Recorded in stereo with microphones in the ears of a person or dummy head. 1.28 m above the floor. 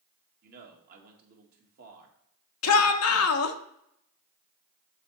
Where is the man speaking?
50° right (ahead or behind), 1.8 m.